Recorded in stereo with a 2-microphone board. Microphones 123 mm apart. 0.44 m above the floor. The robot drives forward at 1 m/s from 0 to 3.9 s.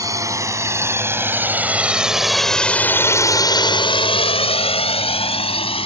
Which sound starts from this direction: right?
A drone, at 0.0 s.